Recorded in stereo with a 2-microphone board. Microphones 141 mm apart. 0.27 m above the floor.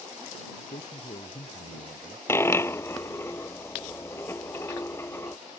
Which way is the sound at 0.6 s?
60° left (ahead or behind).